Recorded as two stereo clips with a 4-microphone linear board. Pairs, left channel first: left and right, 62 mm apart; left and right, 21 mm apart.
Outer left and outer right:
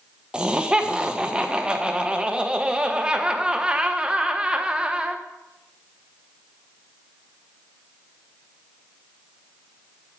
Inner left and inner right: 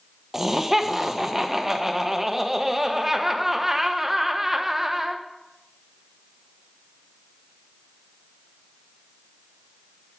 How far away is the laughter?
About 1.0 m.